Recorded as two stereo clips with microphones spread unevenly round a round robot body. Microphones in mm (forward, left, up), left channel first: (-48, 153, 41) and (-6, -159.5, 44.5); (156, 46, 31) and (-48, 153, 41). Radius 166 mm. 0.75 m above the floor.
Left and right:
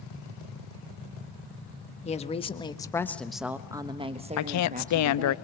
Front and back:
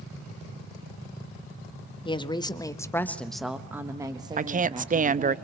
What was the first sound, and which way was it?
A woman speaking, 35° left.